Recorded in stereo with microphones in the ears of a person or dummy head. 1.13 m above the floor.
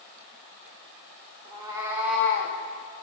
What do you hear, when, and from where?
1.4 s a cat meowing: 30° right (ahead or behind), 1.6 m; by 2.6 s 45° left (ahead or behind), 0.6 m